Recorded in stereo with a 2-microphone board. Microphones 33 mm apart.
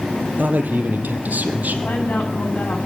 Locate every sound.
0.4 s a man speaking: 60° right (ahead or behind), 3.5 m; by 1.8 s 50° right (ahead or behind), 4 m
1.9 s a woman speaking: 65° left (ahead or behind), 9.5 m